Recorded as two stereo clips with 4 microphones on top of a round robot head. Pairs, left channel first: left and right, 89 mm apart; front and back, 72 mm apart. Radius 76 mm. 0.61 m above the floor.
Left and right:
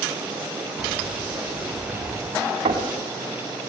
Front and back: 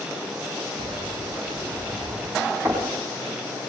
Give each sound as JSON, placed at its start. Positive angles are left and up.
{"t": 0.8, "sound": "keys jangling", "azimuth_deg": -175, "distance_m": 1.5}
{"t": 2.6, "sound": "knocking", "azimuth_deg": -110, "distance_m": 3.5}